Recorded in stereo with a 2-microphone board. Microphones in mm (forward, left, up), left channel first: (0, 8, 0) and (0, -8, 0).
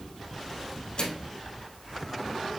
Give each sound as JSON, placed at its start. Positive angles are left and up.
{"t": 1.0, "sound": "a microwave", "side_deg": 65, "distance_m": 2.5}